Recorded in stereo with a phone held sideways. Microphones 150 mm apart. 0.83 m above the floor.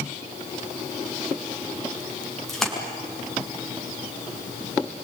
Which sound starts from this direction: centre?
A splash, at 2.5 s.